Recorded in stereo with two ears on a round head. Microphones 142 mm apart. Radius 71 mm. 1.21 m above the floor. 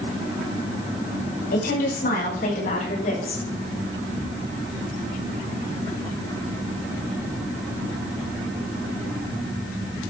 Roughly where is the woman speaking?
Left.